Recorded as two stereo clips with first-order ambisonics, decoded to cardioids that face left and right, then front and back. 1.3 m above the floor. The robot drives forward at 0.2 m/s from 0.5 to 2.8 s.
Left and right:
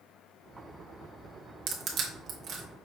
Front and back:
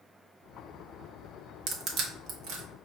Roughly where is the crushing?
Behind right.